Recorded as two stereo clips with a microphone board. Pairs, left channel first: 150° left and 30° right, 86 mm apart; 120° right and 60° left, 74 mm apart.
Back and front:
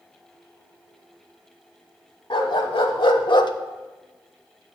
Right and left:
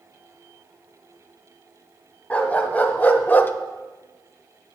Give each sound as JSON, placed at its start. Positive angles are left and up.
{"t": 2.3, "sound": "a dog barking", "azimuth_deg": 170, "distance_m": 1.4}